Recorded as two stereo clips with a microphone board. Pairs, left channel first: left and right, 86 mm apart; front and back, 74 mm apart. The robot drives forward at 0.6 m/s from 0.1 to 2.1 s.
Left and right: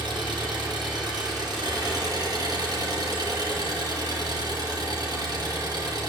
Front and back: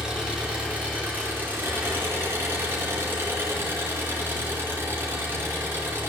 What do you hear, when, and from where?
0.0 s an engine running: 100° right, 2.5 m; by 6.1 s 125° right, 3 m